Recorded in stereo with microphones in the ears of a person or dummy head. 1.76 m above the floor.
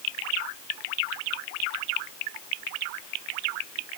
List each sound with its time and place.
Only background noise.